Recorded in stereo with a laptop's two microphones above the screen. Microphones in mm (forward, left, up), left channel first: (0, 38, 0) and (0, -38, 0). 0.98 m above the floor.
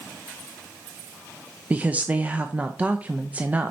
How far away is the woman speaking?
About 0.6 m.